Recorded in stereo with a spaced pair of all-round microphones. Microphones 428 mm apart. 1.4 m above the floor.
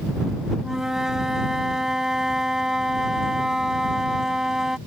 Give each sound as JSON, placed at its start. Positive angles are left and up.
{"t": 0.6, "sound": "a flute", "side_deg": 0}